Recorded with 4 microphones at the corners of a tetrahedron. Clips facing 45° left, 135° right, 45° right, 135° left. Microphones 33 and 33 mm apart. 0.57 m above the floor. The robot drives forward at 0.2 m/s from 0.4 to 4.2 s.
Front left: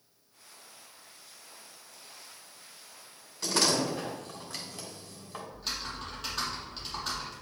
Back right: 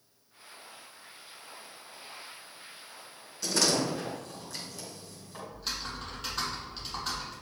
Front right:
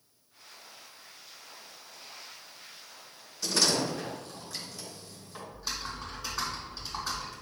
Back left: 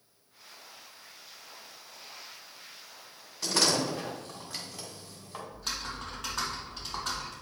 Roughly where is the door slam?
Left.